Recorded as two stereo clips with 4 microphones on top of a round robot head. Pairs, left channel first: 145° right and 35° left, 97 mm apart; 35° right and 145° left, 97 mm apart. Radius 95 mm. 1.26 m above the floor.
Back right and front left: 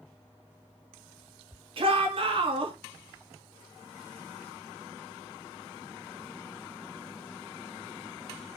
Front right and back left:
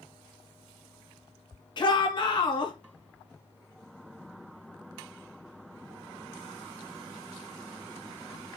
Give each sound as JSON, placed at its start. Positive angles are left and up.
{"t": 1.8, "sound": "a shout", "azimuth_deg": 5, "distance_m": 3.0}